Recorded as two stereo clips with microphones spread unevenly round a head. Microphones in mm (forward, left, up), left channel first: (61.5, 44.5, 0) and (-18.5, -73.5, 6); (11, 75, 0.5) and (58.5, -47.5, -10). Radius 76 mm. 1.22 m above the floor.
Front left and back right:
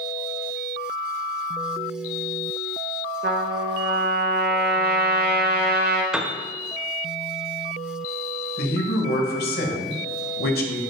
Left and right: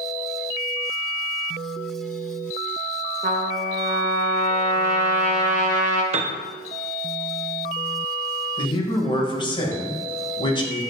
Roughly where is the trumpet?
Right.